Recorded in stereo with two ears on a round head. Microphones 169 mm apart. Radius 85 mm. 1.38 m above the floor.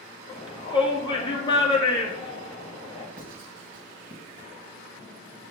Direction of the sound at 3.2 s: 45° right (ahead or behind).